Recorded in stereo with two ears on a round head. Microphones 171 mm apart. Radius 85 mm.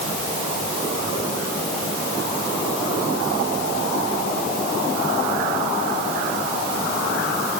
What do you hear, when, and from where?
Only background noise.